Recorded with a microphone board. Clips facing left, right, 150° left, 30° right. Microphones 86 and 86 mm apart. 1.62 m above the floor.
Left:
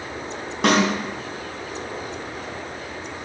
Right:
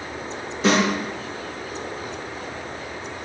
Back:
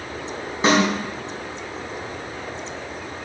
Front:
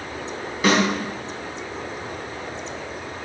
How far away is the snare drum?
About 3.5 m.